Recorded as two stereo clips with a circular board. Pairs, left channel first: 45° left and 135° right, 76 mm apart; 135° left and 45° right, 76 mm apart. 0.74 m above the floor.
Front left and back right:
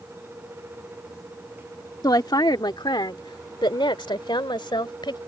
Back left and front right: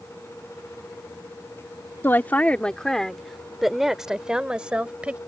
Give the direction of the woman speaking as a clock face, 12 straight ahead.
10 o'clock.